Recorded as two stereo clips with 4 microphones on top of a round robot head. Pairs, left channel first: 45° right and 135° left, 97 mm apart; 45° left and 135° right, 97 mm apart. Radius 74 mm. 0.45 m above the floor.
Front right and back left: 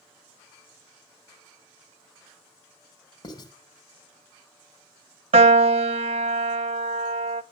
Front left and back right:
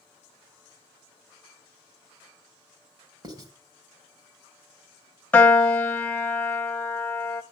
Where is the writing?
90° right, 3 m.